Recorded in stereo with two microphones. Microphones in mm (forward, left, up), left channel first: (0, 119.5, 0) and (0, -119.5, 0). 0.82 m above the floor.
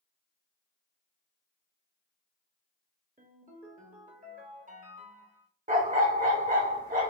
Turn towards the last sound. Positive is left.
turn(degrees=-35)  # may be behind; listen again after turning